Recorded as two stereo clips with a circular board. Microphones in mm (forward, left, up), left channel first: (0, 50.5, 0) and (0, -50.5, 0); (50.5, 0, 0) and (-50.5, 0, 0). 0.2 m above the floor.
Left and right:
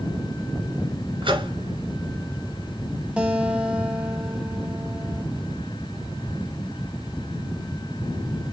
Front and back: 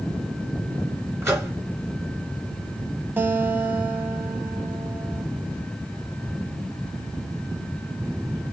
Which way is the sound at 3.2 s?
155° right.